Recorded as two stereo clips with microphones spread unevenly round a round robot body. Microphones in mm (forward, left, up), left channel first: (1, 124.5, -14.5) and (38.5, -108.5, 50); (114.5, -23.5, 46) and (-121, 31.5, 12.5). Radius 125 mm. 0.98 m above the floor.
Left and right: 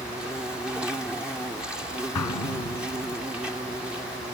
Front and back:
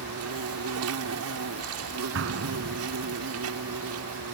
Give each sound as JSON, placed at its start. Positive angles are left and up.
{"t": 0.0, "sound": "an insect", "azimuth_deg": -170}
{"t": 2.1, "sound": "an explosion", "azimuth_deg": 125}